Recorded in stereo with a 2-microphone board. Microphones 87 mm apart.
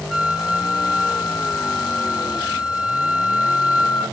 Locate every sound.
0.1 s a flute: 5° right (ahead or behind), 2 m